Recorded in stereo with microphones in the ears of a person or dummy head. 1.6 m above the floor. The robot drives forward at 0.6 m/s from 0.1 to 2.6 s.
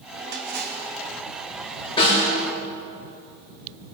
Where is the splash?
65° right (ahead or behind), 1.7 m; by 0.9 s 55° right (ahead or behind), 1.9 m.